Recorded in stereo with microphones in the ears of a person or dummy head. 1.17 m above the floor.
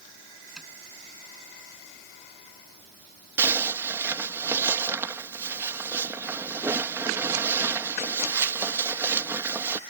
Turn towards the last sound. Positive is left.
turn(degrees=-10)  # may be behind; listen again after turning